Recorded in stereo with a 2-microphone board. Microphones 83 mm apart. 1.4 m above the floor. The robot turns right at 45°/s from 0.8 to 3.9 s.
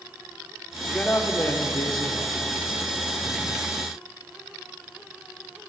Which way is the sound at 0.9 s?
10° left.